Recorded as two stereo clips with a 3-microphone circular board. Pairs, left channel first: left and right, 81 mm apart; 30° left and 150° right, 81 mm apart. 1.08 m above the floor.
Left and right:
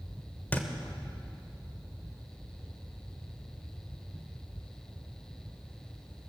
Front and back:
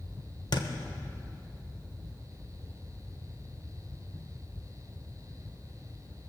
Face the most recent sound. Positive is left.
turn(degrees=25)